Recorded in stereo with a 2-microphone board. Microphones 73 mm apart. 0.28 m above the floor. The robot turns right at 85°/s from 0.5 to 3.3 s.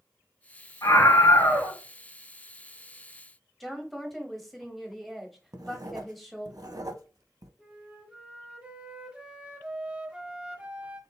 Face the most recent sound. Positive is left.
turn(degrees=-15)  # may be behind; listen again after turning